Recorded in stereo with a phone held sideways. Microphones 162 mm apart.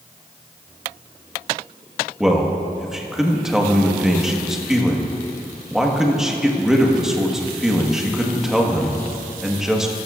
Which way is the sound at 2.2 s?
5° right (ahead or behind).